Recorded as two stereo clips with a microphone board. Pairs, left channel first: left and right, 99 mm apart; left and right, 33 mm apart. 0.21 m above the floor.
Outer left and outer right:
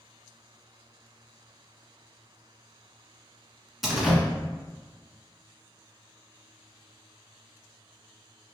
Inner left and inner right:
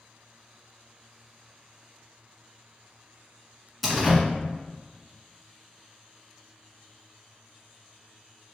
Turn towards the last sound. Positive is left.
turn(degrees=-5)  # may be behind; listen again after turning